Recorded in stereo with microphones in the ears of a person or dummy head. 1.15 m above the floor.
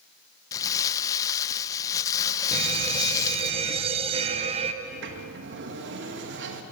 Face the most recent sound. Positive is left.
turn(degrees=-55)  # may be behind; listen again after turning